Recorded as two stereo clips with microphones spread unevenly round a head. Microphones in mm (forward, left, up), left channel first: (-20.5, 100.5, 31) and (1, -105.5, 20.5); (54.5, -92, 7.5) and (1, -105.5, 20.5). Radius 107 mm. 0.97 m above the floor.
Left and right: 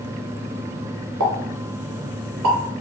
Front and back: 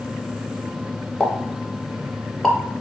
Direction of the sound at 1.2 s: 75° right.